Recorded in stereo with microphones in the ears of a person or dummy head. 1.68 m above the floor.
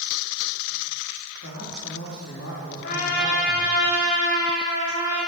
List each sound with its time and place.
1.4 s a man speaking: 60° left (ahead or behind), 3 m
2.8 s a trumpet: 50° left (ahead or behind), 3 m